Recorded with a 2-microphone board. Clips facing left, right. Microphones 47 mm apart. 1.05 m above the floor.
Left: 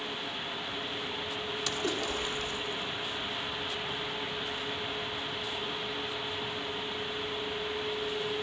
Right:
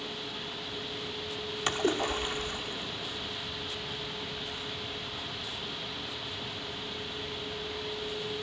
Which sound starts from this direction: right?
A splash, at 1.7 s.